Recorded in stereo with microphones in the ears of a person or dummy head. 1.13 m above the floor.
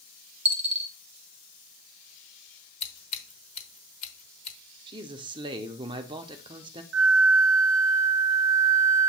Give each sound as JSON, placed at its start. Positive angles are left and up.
{"t": 0.5, "sound": "a dropped coin", "side_deg": -10, "distance_m": 0.6}
{"t": 2.8, "sound": "scissors", "side_deg": 35, "distance_m": 1.7}
{"t": 4.9, "sound": "a man speaking", "side_deg": -25, "distance_m": 0.7}
{"t": 6.9, "sound": "a flute", "side_deg": -65, "distance_m": 0.9}